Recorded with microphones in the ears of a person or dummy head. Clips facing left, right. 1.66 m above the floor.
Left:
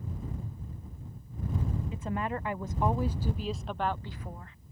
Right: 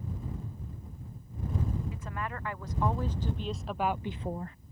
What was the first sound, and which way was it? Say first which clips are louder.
A woman speaking: left 5 dB; 20° left (ahead or behind).